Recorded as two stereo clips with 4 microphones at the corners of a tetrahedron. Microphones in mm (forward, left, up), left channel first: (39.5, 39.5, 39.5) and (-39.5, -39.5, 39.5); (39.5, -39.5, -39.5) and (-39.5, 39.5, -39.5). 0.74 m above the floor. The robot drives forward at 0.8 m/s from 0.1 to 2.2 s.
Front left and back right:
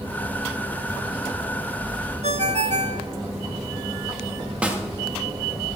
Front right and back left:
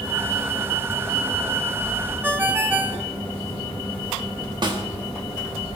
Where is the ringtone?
150° right, 0.7 m.